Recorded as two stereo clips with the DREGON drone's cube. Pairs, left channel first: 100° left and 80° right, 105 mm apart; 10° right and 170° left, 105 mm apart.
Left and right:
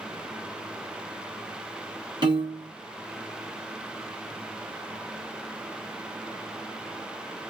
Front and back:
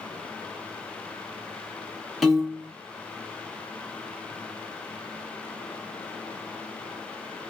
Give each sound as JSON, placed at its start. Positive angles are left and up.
{"t": 2.2, "sound": "a piano", "azimuth_deg": -100, "distance_m": 0.8}